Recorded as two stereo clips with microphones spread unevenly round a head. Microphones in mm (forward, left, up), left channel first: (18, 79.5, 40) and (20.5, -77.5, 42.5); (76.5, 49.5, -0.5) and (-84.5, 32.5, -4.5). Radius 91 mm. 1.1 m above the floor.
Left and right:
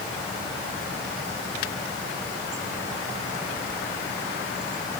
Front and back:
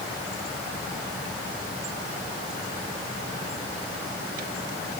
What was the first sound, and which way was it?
Only background noise.